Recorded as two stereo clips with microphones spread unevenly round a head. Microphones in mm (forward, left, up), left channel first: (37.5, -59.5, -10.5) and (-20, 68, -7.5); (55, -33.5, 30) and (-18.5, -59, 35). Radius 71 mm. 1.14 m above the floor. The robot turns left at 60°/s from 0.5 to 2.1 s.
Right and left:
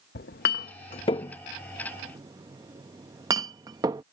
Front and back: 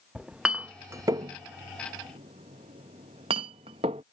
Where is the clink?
85° right; by 4.0 s straight behind.